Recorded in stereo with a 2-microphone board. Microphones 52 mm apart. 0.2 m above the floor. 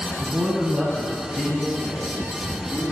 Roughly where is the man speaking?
Right.